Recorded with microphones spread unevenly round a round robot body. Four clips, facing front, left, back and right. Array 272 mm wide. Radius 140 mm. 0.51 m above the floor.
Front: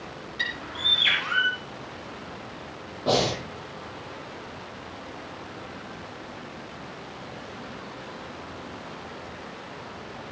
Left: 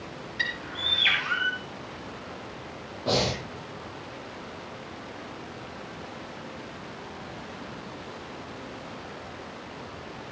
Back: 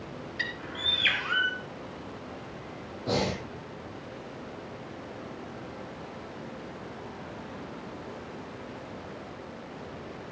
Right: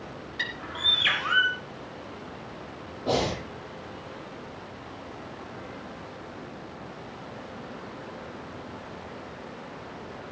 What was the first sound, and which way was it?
A bird, 125° right.